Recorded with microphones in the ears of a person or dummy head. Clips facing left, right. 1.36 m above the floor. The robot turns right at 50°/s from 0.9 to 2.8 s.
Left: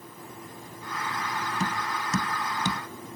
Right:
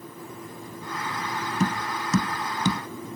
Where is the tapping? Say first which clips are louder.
Right 7 dB; 40° right (ahead or behind); by 2.8 s 80° right.